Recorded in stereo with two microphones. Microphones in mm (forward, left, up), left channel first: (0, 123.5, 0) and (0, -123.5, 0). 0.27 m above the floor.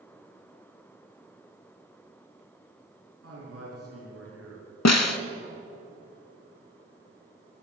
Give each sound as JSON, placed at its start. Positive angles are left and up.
{"t": 3.2, "sound": "a man speaking", "side_deg": -70, "distance_m": 3.5}
{"t": 4.8, "sound": "a snare drum", "side_deg": 85, "distance_m": 0.5}